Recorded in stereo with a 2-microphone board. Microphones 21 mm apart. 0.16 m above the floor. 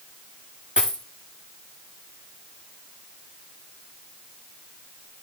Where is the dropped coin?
60° right (ahead or behind), 8 m.